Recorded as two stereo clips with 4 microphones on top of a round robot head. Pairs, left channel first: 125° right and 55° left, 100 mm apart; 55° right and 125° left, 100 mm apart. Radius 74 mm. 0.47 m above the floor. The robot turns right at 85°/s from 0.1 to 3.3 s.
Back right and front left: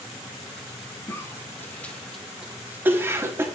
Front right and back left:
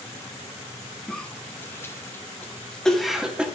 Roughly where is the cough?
Behind right.